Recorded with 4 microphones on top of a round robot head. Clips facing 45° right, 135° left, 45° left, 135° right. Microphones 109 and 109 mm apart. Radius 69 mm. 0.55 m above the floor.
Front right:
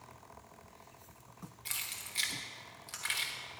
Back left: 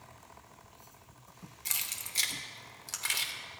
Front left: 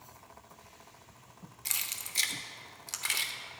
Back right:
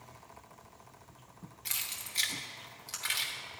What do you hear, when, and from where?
1.6 s keys jangling: 85° left, 1.0 m